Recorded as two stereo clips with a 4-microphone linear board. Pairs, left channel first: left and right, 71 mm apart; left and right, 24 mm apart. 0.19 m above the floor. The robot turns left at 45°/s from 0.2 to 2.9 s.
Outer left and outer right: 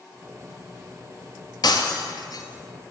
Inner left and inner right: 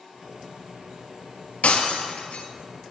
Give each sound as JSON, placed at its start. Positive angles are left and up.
{"t": 1.6, "sound": "breaking glass", "side_deg": 75, "distance_m": 1.5}